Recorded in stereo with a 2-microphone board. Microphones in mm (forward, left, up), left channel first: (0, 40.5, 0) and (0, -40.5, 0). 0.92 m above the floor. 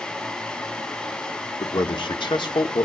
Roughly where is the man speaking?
Left.